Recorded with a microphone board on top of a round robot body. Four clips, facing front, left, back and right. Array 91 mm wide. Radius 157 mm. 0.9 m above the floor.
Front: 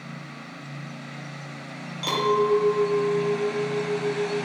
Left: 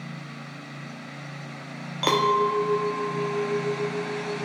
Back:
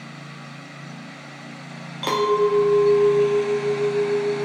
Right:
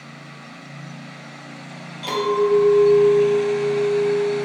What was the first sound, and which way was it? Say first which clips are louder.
A clink: right 2 dB, back 3 dB; 110° left.